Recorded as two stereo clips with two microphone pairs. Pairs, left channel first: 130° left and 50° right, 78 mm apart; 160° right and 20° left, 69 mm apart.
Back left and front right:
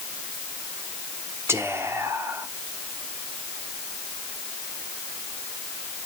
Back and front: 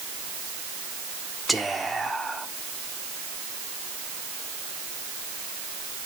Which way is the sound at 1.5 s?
65° right.